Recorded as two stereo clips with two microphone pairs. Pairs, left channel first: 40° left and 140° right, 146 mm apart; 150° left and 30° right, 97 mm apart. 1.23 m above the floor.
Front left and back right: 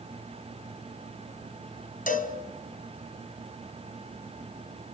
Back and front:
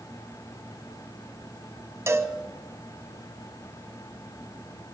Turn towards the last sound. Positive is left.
turn(degrees=30)